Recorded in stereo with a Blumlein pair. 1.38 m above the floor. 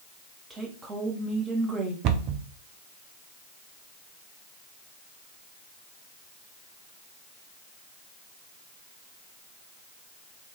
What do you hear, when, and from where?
0.5 s a woman speaking: 15° right, 1.6 m
2.0 s a cupboard door: 40° right, 0.6 m